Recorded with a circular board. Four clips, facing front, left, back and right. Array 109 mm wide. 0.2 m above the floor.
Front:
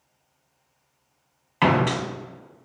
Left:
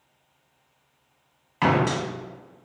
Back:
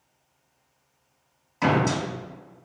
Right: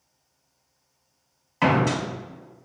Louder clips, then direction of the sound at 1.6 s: Even, front 2 dB; 5° left.